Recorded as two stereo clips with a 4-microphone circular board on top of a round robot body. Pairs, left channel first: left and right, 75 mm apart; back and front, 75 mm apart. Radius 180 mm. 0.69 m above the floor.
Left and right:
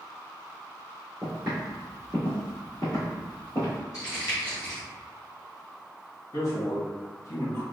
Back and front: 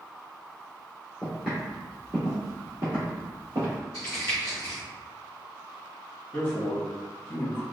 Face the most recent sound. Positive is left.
turn(degrees=115)